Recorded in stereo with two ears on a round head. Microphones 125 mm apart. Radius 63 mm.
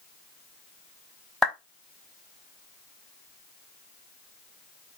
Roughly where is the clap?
Centre.